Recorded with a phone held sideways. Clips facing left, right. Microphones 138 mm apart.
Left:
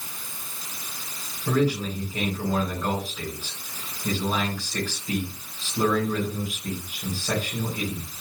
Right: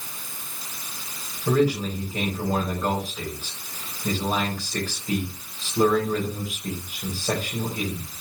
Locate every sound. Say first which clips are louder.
1.5 s a man speaking: right 2 dB; 35° right (ahead or behind), 4 m